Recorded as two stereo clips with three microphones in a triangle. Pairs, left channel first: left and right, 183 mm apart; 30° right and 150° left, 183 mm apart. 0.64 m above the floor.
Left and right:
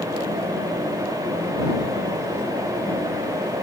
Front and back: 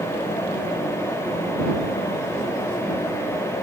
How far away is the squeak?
No squeak in this recording.